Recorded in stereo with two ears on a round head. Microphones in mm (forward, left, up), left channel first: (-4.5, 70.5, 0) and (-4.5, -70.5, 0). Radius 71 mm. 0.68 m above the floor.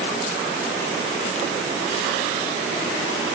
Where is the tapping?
I don't hear tapping.